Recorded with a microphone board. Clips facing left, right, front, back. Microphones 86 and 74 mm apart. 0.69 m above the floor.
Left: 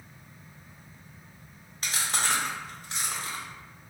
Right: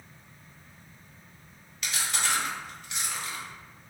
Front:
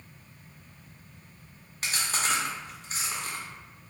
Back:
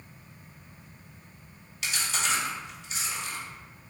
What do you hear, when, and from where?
1.8 s chewing: 40° left, 0.7 m